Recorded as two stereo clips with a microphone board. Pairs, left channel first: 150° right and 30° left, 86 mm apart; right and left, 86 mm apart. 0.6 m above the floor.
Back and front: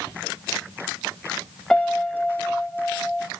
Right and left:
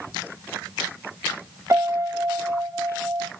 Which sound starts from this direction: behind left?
A piano, at 1.7 s.